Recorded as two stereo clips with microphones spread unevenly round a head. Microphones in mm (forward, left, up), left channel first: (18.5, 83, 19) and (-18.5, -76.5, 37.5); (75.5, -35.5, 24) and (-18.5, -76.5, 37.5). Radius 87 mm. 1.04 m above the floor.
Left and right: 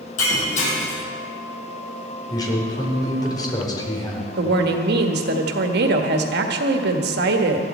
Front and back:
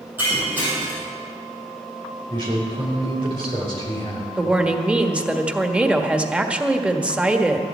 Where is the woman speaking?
75° right, 1.6 m.